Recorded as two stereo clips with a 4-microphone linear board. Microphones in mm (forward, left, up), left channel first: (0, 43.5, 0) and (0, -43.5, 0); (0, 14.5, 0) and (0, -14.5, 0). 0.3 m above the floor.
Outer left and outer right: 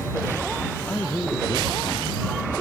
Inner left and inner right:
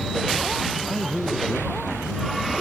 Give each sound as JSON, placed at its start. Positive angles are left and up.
{"t": 0.9, "sound": "a man speaking", "side_deg": 15}